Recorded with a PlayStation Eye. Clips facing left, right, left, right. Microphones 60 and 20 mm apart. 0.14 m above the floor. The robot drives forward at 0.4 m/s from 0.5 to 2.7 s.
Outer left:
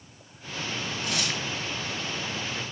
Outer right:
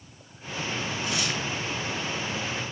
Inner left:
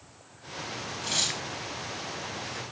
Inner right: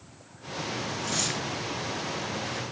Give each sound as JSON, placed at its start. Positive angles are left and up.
{"t": 1.0, "sound": "tearing paper", "side_deg": 55, "distance_m": 2.0}